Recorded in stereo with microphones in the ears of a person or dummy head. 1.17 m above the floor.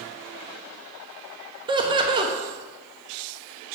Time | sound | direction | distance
1.7 | laughter | 20° right (ahead or behind) | 0.7 m